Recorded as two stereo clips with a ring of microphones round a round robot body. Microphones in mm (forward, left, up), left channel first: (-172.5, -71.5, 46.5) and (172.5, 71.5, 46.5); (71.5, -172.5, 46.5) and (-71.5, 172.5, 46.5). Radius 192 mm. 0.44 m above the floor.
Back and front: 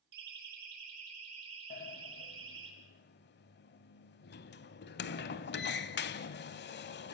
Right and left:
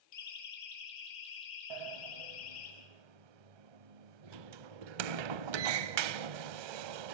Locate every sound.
0.1 s a siren: 20° right, 5 m; by 2.7 s 40° right, 8 m
1.7 s a sliding door: 140° left, 0.9 m